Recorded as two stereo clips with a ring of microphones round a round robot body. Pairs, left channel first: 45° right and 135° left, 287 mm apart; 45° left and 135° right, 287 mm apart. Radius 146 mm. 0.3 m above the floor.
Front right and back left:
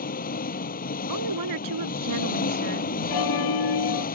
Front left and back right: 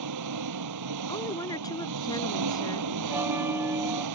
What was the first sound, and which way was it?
An engine running, 105° right.